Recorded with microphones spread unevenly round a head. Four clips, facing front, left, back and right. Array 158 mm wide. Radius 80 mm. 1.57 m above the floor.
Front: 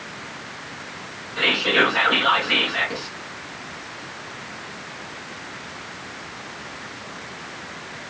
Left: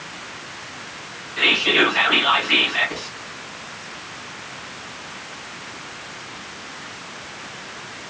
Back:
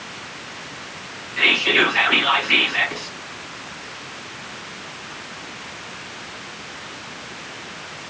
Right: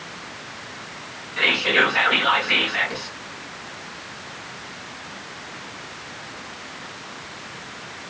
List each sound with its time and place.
1.4 s whispering: 20° right, 1.7 m